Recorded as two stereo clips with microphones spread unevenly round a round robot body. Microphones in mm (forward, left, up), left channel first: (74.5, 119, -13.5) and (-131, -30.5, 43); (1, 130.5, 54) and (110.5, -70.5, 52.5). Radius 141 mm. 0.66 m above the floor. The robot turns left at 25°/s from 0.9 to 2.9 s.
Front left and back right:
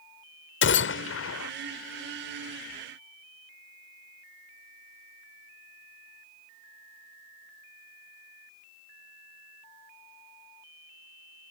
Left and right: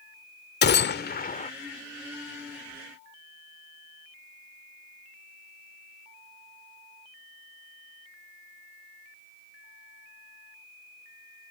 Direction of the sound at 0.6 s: 75° left.